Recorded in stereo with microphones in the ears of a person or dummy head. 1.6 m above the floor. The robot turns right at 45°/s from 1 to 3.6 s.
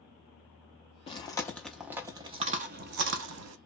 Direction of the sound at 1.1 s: 25° left (ahead or behind).